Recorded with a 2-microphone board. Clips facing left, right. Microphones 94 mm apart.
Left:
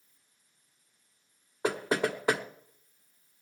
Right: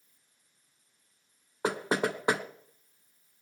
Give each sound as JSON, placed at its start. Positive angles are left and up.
{"t": 1.6, "sound": "knocking", "side_deg": -20, "distance_m": 1.1}